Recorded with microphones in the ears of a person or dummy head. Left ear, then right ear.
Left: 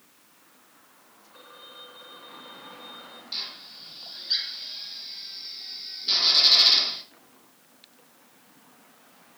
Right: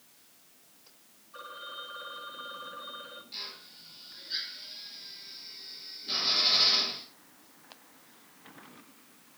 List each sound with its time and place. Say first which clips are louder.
1.3 s a phone ringing: right 5 dB; 25° right (ahead or behind), 4 m
3.3 s a drill: left 9 dB; 40° left (ahead or behind), 4.5 m